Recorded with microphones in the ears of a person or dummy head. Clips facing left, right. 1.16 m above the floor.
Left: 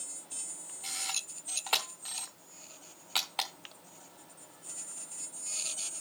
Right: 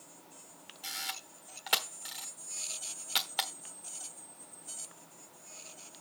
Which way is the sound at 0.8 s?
15° right (ahead or behind).